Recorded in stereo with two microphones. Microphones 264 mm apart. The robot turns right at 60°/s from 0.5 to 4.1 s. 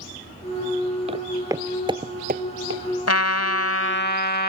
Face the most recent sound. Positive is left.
turn(degrees=140)